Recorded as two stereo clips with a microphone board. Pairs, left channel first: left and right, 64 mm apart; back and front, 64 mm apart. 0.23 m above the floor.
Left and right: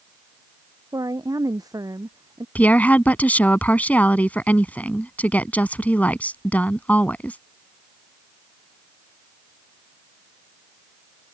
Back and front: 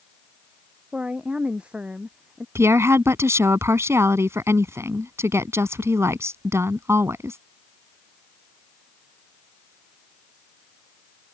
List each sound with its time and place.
0.9 s a woman speaking: 70° right
2.5 s a woman speaking: 30° left